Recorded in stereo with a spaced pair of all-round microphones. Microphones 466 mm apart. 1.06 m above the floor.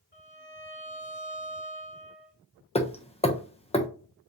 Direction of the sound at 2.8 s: 15° left (ahead or behind).